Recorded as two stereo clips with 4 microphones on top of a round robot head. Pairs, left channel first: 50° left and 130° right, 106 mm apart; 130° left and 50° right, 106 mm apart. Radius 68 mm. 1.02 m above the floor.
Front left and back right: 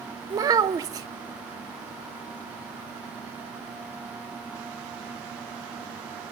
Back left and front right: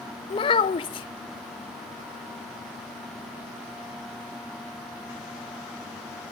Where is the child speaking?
175° left, 0.7 m.